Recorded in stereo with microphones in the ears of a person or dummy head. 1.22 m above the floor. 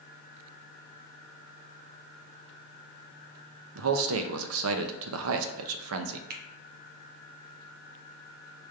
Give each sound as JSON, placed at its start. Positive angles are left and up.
{"t": 3.8, "sound": "a man speaking", "side_deg": -75, "distance_m": 0.6}
{"t": 6.3, "sound": "a finger snap", "side_deg": -50, "distance_m": 0.5}